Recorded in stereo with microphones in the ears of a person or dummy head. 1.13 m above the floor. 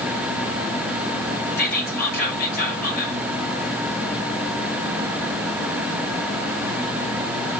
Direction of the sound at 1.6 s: 50° left (ahead or behind).